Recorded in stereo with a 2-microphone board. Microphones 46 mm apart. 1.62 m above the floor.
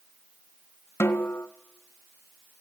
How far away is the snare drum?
About 1.6 m.